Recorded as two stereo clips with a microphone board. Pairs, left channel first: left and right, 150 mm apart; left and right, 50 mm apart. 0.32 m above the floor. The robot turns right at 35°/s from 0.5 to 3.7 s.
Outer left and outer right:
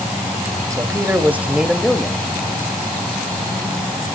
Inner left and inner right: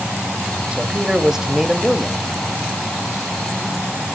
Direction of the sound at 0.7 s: 40° right.